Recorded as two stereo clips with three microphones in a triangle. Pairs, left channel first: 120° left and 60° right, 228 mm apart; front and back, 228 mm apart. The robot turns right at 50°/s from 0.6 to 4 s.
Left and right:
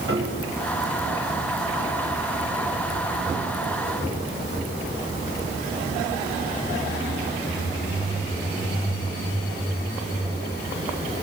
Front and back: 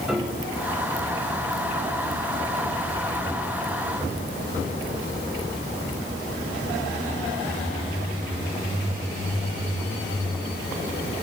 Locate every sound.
0.1 s a piano: 90° right, 6 m